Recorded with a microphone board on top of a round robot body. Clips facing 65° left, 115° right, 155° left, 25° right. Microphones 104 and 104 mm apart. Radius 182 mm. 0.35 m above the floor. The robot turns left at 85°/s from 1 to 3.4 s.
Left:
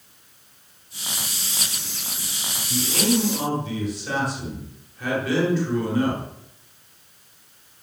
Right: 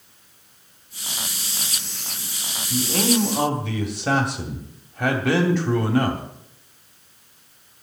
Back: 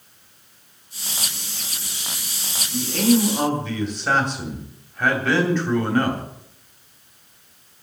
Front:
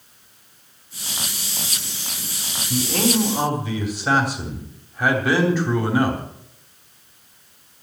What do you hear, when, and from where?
2.7 s a man speaking: 40° right, 2.5 m; by 6.2 s 100° right, 2.5 m